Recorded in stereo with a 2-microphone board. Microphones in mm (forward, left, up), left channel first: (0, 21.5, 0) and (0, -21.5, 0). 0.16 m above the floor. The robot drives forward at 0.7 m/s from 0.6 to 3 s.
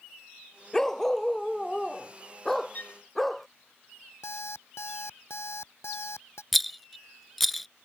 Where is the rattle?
5° left (ahead or behind).